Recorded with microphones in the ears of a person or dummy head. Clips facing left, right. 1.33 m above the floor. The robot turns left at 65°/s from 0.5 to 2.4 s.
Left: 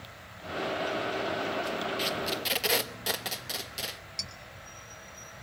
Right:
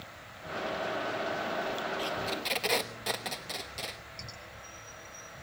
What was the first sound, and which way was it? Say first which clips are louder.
Tape being pulled: left 2 dB; 30° left (ahead or behind).